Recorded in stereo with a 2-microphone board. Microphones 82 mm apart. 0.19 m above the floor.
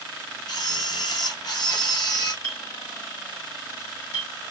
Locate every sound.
0.5 s a camera shutter: 55° left (ahead or behind), 2.5 m
2.4 s a clink: 40° left (ahead or behind), 2.5 m